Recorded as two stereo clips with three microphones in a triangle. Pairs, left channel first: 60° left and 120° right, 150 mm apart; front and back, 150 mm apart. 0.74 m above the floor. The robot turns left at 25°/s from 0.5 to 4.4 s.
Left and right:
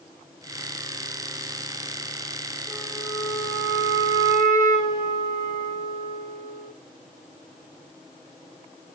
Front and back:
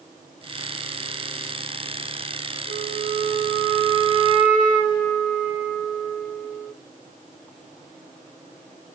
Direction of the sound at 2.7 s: 10° right.